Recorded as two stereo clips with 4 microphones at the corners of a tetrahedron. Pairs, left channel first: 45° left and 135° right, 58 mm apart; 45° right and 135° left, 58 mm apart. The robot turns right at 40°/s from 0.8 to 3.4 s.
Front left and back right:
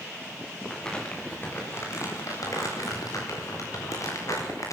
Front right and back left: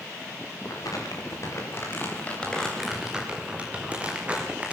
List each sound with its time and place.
0.7 s crumpling: 35° right, 8.5 m; by 4.8 s 65° left, 8.5 m